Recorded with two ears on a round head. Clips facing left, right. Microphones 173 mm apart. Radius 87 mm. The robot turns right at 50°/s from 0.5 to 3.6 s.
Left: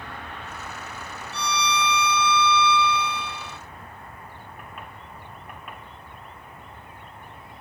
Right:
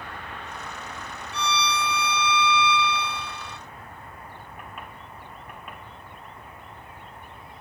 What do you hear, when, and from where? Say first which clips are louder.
1.3 s a violin: left 1 dB; 30° left; by 3.6 s 140° left